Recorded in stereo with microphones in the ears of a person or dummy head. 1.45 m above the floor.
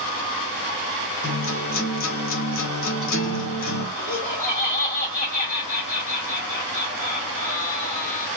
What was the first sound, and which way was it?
A guitar, 70° left (ahead or behind).